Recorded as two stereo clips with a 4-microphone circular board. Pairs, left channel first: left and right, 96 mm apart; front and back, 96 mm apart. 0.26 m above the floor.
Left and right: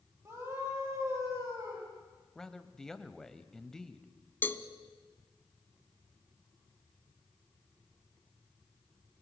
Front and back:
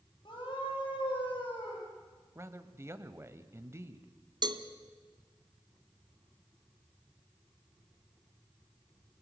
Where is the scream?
35° right, 8 m; by 1.9 s 30° right, 9.5 m.